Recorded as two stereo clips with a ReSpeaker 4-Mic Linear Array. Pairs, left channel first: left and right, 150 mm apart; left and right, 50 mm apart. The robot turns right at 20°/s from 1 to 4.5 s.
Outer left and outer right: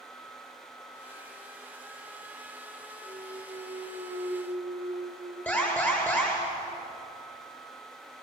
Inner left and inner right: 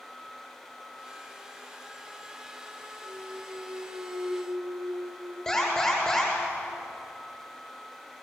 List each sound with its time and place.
3.0 s a clunk: 55° right (ahead or behind), 2.0 m; by 6.5 s 70° right (ahead or behind), 2.0 m
5.5 s an alarm: 10° left (ahead or behind), 10 m